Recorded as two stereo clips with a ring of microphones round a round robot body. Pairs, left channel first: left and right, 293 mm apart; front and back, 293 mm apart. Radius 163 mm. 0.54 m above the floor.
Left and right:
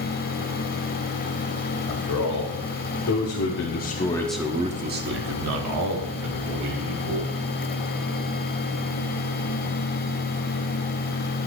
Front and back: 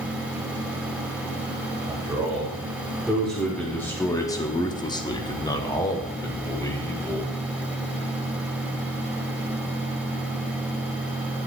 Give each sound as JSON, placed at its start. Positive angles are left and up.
{"t": 1.9, "sound": "a man speaking", "azimuth_deg": 95, "distance_m": 2.5}